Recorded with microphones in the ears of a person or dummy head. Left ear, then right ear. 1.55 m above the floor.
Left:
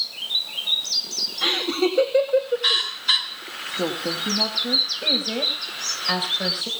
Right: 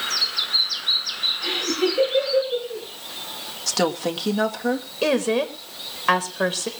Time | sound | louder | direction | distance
1.4 | laughter | left 1 dB | 55° left (ahead or behind) | 1.7 m
3.7 | a woman speaking | right 3 dB | 70° right (ahead or behind) | 1.8 m
5.0 | a woman speaking | right 1 dB | 40° right (ahead or behind) | 1.5 m